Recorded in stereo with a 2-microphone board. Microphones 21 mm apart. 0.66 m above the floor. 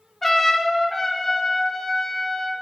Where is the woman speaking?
I don't hear a woman speaking.